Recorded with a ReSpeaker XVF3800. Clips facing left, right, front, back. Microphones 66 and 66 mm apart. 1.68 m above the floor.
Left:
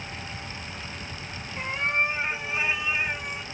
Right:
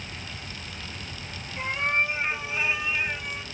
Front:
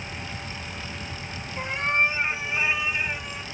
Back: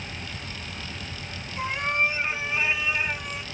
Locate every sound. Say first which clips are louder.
1.6 s a cat meowing: even, front 1 dB; 10° right, 1.7 m; by 3.4 s 135° left, 1.4 m